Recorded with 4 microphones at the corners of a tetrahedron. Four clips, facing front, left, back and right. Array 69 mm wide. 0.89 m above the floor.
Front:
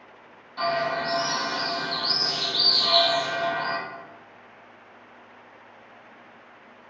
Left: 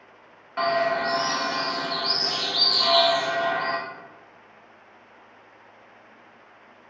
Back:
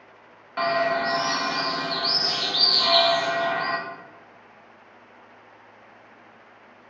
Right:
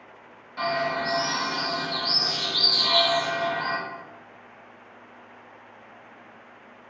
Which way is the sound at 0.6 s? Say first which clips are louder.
Left 3 dB, back 3 dB; 150° left.